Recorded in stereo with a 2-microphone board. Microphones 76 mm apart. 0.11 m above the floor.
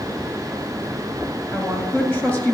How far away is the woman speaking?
About 1.8 m.